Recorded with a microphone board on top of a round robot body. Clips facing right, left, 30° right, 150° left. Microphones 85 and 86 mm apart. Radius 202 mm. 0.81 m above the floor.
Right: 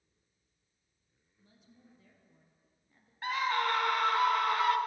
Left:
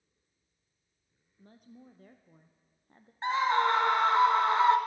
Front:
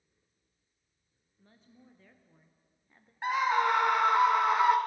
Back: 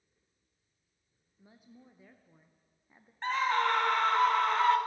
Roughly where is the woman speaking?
Left.